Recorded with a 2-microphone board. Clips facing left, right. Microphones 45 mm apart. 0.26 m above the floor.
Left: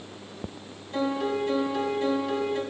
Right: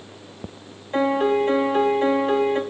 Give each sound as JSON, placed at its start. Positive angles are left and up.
{"t": 0.9, "sound": "a piano", "side_deg": -40, "distance_m": 0.7}